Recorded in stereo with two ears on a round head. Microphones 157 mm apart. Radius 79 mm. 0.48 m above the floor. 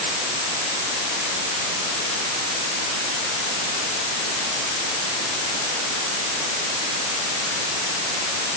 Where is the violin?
I don't hear a violin.